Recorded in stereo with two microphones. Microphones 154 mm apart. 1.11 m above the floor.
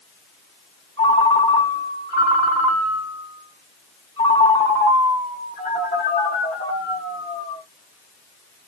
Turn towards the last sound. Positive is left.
turn(degrees=45)  # may be behind; listen again after turning